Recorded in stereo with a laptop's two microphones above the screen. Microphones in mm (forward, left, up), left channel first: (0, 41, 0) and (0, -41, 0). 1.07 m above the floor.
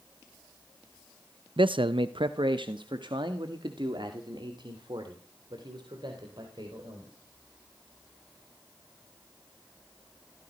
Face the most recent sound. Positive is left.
turn(degrees=-60)  # may be behind; listen again after turning